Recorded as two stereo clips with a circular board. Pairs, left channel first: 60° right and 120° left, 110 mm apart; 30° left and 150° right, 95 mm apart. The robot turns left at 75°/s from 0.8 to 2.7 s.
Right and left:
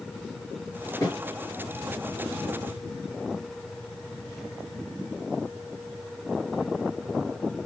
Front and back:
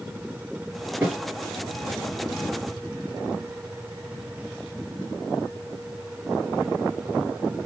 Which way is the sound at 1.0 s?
80° right.